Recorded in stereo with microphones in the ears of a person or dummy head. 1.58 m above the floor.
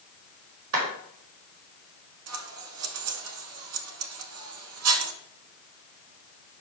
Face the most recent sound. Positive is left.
turn(degrees=-85)